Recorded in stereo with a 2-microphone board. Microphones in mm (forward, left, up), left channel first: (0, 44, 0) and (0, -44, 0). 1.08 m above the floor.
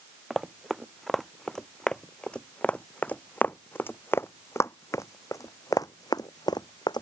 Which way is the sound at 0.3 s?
5° right (ahead or behind).